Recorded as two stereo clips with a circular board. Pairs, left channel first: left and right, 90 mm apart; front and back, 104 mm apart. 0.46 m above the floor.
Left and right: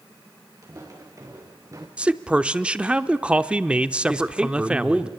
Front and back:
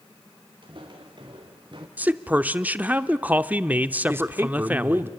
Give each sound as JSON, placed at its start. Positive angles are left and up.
{"t": 0.6, "sound": "footsteps", "azimuth_deg": -140, "distance_m": 4.5}
{"t": 2.0, "sound": "a man speaking", "azimuth_deg": -140, "distance_m": 0.7}
{"t": 4.1, "sound": "a man speaking", "azimuth_deg": -155, "distance_m": 1.2}